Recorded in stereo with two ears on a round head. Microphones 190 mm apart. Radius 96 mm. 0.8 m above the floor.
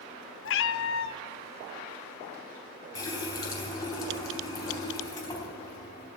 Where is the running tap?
15° left (ahead or behind), 3.5 m.